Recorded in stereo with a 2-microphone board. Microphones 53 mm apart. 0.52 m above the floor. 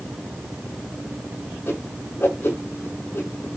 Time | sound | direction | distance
1.7 | a whoosh | 45° left (ahead or behind) | 6.5 m